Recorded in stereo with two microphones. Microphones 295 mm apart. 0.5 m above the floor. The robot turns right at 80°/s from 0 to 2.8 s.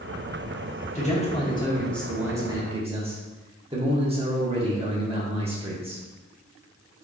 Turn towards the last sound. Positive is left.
turn(degrees=-20)  # may be behind; listen again after turning